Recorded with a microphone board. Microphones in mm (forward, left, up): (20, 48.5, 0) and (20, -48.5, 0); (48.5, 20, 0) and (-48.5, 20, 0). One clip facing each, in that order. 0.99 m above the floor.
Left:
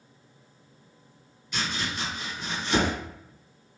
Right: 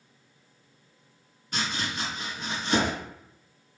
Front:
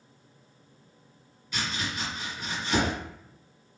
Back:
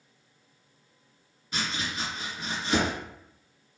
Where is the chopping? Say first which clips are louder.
Even, even; 125° right, 1.4 m.